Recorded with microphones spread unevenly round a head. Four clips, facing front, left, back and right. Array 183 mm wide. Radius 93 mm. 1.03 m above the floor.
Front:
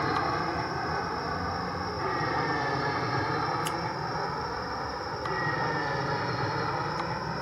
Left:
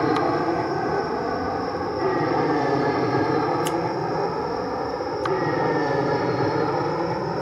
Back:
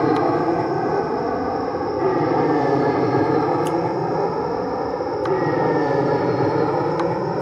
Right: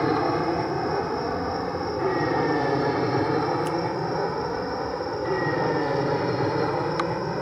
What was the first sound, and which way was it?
An aircraft, 170° left.